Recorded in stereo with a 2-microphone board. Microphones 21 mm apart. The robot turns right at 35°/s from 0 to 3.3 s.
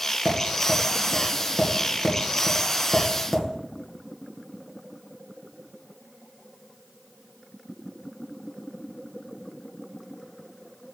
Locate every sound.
0.2 s tapping: 35° right (ahead or behind), 2.5 m; by 3.5 s 20° right (ahead or behind), 2.5 m